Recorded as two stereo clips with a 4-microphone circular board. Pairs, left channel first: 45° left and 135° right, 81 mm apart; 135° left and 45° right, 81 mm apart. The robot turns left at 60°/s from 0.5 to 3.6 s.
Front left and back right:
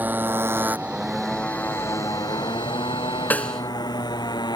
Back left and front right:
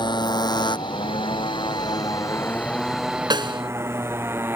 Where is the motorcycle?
155° left; by 4.6 s 15° left.